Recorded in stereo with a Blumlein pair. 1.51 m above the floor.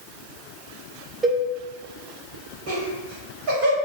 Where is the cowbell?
10° right, 0.7 m.